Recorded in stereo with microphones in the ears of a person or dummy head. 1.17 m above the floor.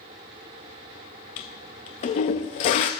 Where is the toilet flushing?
35° left (ahead or behind), 0.6 m.